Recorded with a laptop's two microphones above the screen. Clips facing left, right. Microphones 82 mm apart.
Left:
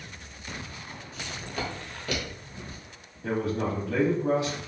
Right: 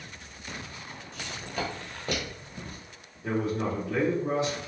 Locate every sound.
1.1 s footsteps: 10° left (ahead or behind), 1.3 m; by 2.8 s 45° right (ahead or behind), 1.4 m
3.2 s a man speaking: 65° left (ahead or behind), 1.6 m